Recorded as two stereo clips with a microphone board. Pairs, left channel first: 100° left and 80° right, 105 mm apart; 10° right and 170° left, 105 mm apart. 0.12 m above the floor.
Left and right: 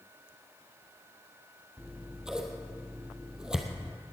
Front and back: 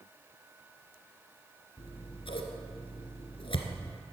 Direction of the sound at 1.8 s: 5° left.